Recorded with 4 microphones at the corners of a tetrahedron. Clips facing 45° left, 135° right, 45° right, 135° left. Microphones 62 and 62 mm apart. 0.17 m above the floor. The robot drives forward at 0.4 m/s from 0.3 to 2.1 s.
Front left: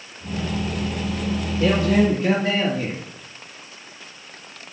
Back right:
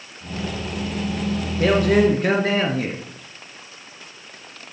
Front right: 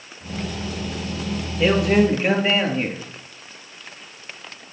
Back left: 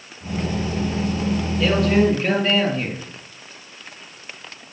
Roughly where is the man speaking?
Right.